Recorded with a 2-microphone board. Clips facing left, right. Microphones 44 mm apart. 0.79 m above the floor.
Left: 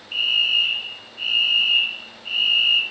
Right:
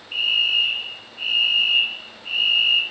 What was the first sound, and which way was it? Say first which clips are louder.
A fire alarm: even; 15° left (ahead or behind).